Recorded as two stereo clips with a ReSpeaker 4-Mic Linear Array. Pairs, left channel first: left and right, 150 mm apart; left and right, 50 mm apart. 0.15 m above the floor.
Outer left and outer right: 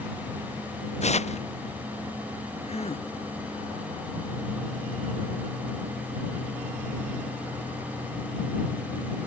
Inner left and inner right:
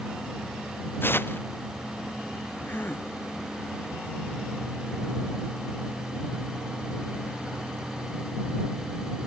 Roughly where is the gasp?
Left.